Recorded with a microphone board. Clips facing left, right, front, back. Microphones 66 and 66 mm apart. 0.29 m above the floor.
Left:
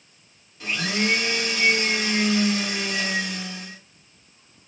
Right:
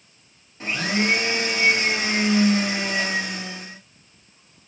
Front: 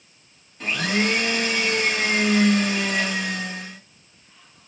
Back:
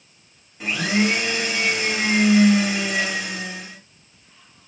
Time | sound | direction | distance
0.6 | a blender | 105° right | 1.4 m